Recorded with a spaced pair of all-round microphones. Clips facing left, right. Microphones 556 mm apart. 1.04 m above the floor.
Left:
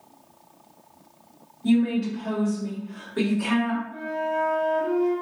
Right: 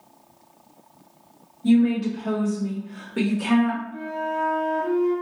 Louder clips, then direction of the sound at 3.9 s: Left 1 dB; 35° right (ahead or behind).